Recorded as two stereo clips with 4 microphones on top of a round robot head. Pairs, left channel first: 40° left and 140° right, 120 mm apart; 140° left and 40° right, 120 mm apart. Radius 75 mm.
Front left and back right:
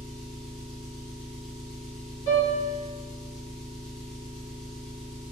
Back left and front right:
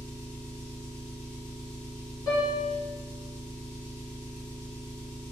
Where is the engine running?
125° left, 1.9 m.